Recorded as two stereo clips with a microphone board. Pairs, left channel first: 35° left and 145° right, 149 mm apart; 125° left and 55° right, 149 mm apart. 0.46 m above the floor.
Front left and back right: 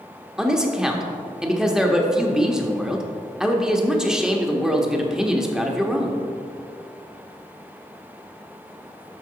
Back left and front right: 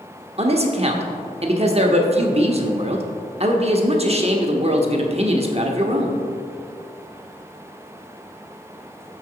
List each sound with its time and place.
0.4 s a man speaking: 60° right, 1.0 m